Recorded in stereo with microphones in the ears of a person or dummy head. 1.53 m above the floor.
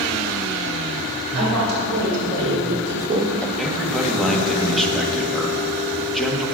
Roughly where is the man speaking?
Centre.